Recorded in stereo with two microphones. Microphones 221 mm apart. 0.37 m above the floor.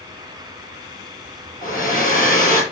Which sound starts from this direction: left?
A hair dryer, at 1.6 s.